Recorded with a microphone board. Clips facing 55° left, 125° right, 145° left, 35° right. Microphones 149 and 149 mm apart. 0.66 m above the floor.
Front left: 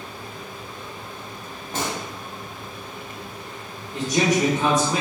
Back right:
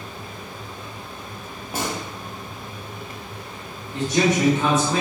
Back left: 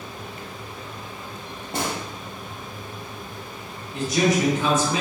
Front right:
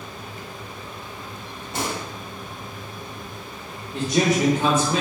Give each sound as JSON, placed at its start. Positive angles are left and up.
{"t": 1.7, "sound": "a gunshot", "azimuth_deg": 155, "distance_m": 0.8}
{"t": 3.9, "sound": "a man speaking", "azimuth_deg": -30, "distance_m": 0.6}